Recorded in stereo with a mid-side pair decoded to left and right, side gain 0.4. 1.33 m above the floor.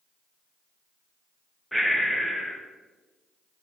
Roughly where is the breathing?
Ahead.